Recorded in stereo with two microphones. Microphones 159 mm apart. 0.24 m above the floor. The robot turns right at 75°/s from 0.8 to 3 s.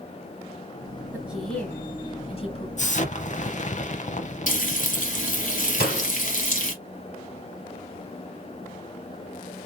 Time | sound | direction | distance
1.1 | a woman speaking | 15° right (ahead or behind) | 1.4 m
2.8 | an explosion | 50° left (ahead or behind) | 0.5 m
4.5 | frying | 55° left (ahead or behind) | 1.0 m
5.8 | a door slam | 65° left (ahead or behind) | 3 m